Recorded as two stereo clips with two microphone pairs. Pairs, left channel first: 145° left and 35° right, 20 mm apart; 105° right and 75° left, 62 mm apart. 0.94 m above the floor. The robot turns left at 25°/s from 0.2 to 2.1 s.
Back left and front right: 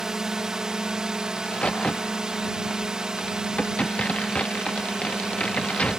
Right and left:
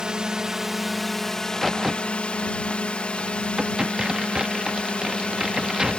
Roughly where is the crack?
Behind.